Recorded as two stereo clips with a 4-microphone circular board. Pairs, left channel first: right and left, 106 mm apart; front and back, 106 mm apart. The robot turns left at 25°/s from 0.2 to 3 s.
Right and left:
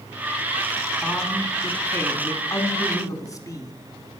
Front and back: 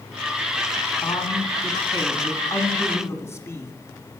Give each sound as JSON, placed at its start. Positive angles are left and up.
{"t": 1.0, "sound": "a man speaking", "azimuth_deg": 0, "distance_m": 1.3}